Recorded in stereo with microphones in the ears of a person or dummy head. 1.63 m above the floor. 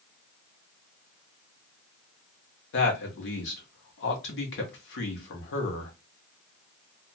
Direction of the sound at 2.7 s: 60° left (ahead or behind).